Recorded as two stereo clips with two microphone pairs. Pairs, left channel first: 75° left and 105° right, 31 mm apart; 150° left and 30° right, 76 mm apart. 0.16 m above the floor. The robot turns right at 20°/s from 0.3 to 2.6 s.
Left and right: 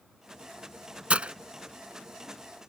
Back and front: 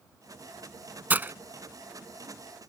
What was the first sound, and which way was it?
Breaking glass, 85° right.